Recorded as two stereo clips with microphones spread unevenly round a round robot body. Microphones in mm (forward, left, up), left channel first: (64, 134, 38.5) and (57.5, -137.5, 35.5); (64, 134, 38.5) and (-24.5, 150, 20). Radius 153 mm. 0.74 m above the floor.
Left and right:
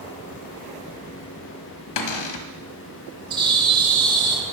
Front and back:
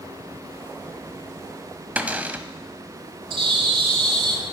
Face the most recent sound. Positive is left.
turn(degrees=-165)